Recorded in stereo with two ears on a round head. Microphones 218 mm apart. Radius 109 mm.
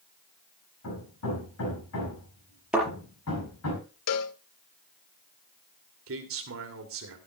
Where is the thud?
5° right (ahead or behind), 4.5 m.